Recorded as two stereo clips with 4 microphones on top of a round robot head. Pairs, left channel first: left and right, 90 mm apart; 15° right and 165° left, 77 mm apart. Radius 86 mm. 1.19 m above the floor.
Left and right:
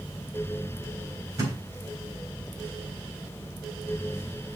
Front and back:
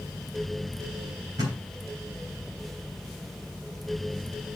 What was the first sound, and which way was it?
A thud, 145° right.